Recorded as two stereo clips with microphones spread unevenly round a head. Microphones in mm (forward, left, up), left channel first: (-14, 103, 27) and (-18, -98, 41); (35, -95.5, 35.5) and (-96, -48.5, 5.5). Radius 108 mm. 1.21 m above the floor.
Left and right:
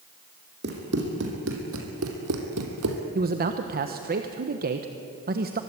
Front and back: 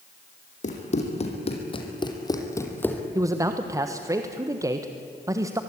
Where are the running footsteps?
50° right, 4 m; by 3.0 s 95° right, 3 m.